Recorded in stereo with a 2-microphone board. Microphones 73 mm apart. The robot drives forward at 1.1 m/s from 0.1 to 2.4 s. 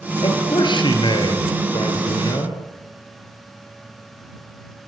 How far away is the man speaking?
About 5.5 m.